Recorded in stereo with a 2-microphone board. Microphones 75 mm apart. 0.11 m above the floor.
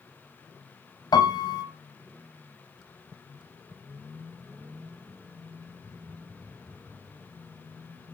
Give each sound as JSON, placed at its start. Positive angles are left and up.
{"t": 1.1, "sound": "a piano", "side_deg": 65, "distance_m": 1.4}